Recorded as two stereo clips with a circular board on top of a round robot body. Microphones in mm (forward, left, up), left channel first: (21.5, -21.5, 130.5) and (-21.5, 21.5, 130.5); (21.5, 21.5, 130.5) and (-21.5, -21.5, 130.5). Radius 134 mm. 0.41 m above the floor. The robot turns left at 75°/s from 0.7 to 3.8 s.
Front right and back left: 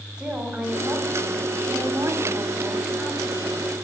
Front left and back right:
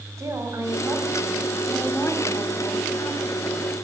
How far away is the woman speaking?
About 2.5 m.